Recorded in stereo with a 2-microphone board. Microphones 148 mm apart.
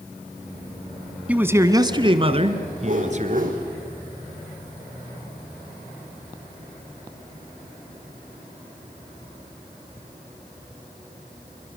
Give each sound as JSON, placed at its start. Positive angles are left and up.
{"t": 1.3, "sound": "a man speaking", "side_deg": -10, "distance_m": 1.1}
{"t": 2.8, "sound": "a whoosh", "side_deg": -60, "distance_m": 4.5}